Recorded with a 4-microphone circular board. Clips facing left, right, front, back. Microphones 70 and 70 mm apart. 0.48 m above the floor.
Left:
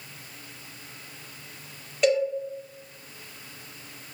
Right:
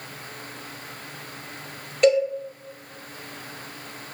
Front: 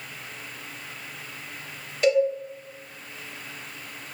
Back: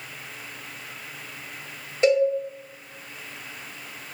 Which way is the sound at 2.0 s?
Straight behind.